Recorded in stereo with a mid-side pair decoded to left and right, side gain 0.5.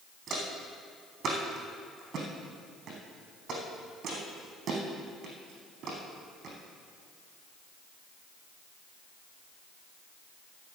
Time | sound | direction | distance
0.3 | footsteps | 55° right | 4 m